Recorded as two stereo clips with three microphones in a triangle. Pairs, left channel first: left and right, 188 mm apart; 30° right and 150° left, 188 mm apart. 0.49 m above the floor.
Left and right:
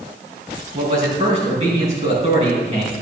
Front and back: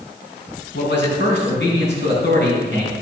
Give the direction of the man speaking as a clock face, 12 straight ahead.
1 o'clock.